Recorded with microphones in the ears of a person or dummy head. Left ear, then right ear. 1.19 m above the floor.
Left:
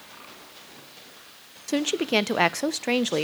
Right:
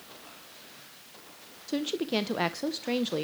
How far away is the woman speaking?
About 0.7 m.